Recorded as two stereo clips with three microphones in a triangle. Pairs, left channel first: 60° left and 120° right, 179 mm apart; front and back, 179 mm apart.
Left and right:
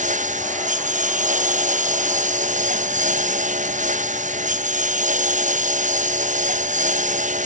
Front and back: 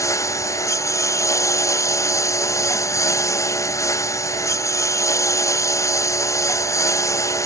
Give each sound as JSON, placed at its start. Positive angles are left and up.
{"t": 0.0, "sound": "a lawn mower", "azimuth_deg": -75}